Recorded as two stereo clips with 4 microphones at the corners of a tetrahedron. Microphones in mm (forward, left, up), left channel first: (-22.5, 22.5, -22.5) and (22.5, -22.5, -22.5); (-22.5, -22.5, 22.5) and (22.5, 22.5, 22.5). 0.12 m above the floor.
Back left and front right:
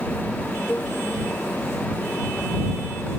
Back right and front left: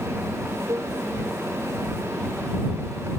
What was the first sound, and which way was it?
A cowbell, 75° left.